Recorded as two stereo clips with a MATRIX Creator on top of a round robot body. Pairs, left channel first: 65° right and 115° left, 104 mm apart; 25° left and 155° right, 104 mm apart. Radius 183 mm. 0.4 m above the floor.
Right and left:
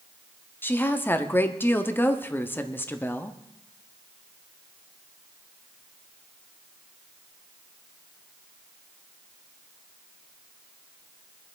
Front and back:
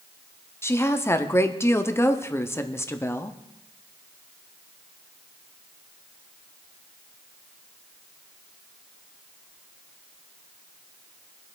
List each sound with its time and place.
0.6 s a woman speaking: 15° right, 1.3 m